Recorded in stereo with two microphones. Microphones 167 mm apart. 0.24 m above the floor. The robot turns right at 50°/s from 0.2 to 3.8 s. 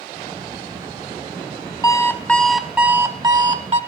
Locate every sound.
1.8 s an alarm clock: 145° left, 0.9 m; by 3.8 s 115° right, 0.9 m